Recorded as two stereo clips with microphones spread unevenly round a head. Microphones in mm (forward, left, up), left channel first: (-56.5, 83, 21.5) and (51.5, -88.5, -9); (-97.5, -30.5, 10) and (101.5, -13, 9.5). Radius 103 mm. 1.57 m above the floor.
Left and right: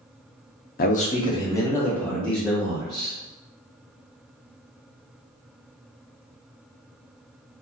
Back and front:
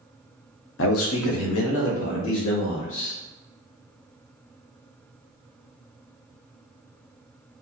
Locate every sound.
0.8 s a man speaking: 160° left, 0.5 m; by 3.2 s 145° right, 1.8 m